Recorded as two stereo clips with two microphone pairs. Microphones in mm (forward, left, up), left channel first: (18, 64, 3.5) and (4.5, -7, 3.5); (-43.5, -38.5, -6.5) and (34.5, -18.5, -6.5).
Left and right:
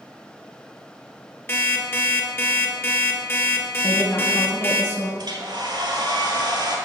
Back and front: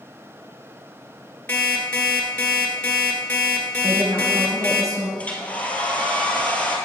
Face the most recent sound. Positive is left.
turn(degrees=-95)